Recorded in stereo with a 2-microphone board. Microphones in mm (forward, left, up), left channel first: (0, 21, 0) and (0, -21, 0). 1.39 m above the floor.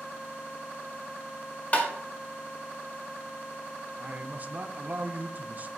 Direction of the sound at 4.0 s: 40° right (ahead or behind).